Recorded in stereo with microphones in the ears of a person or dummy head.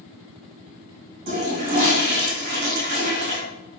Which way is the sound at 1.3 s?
45° right (ahead or behind).